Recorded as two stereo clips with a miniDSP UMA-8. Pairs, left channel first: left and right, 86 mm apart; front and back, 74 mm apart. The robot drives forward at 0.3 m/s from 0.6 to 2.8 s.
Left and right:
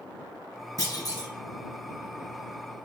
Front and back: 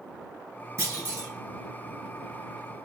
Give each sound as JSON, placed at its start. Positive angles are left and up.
{"t": 0.8, "sound": "a clunk", "azimuth_deg": 125, "distance_m": 2.0}